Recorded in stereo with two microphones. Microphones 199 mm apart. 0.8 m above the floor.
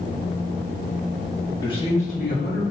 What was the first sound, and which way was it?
A man speaking, 20° left (ahead or behind).